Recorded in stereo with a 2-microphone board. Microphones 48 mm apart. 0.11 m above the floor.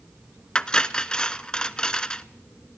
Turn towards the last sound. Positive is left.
turn(degrees=20)  # may be behind; listen again after turning